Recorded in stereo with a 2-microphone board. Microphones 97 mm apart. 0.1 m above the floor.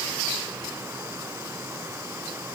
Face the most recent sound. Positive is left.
No sound to turn to.